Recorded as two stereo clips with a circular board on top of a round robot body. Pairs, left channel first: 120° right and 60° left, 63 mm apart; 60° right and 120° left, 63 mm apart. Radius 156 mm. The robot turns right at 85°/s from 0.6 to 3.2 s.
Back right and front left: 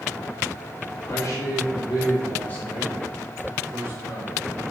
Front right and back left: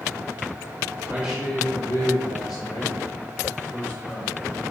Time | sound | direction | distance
1.0 | a man speaking | straight behind | 1.2 m